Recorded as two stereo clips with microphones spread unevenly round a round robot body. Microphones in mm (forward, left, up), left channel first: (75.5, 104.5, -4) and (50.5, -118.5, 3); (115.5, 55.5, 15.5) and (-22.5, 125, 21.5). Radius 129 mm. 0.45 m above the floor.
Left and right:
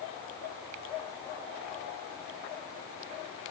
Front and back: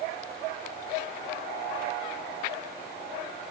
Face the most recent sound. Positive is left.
No sound to turn to.